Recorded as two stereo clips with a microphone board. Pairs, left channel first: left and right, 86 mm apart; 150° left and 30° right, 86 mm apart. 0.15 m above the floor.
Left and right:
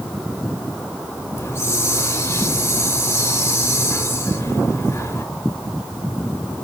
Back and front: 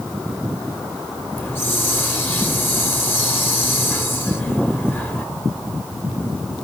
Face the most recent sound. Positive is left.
turn(degrees=115)